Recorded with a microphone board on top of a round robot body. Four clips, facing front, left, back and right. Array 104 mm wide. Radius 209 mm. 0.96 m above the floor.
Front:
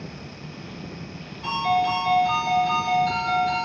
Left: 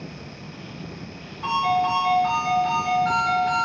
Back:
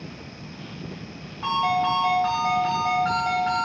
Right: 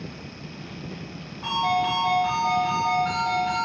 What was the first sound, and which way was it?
A ringtone, 175° right.